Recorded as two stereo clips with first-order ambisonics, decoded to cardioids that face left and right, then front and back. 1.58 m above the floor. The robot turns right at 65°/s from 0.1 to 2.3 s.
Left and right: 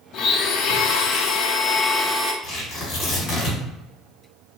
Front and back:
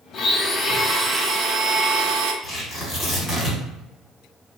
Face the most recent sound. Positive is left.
turn(degrees=55)